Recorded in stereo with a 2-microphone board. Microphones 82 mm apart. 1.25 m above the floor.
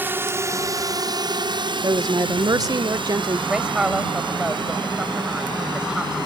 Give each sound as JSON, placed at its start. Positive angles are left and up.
{"t": 0.0, "sound": "a drone", "side_deg": -25}
{"t": 1.8, "sound": "a woman speaking", "side_deg": -50}
{"t": 3.5, "sound": "a woman speaking", "side_deg": -10}